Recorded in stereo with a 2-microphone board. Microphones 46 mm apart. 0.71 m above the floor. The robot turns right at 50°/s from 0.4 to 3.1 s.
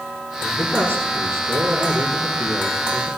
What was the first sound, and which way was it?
A man speaking, 130° right.